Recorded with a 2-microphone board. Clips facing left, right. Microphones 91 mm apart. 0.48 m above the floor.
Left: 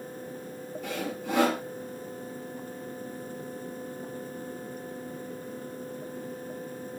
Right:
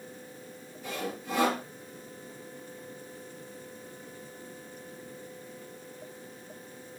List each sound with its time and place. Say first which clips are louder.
0.8 s sawing: left 2 dB; 80° left, 7.5 m